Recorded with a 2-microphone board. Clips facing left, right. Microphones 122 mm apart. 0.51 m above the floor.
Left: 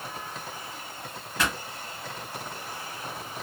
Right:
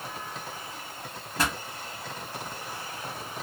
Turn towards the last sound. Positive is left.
turn(degrees=-35)  # may be behind; listen again after turning